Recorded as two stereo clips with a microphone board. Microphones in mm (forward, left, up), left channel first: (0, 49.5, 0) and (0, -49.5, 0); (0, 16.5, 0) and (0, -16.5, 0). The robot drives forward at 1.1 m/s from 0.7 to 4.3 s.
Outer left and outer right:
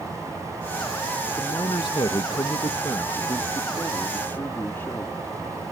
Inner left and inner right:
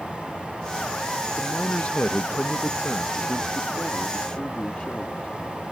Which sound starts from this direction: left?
A man speaking, at 1.3 s.